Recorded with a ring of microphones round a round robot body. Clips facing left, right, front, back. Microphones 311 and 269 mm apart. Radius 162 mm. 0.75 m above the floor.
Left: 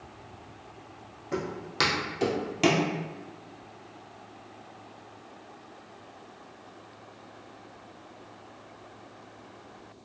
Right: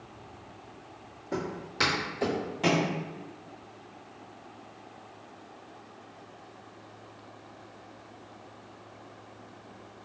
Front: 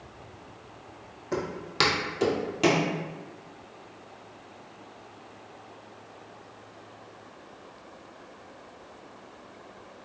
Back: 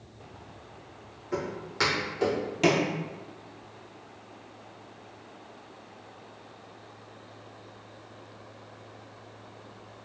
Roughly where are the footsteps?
Ahead.